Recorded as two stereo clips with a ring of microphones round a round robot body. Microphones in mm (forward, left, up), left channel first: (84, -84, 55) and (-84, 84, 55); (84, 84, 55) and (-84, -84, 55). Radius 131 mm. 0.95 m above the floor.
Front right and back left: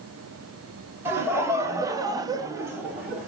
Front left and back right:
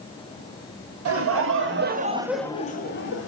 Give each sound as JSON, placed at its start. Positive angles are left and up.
{"t": 1.1, "sound": "laughter", "azimuth_deg": -145, "distance_m": 1.9}